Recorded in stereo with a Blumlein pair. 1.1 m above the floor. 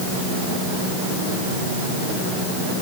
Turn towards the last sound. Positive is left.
No sound to turn to.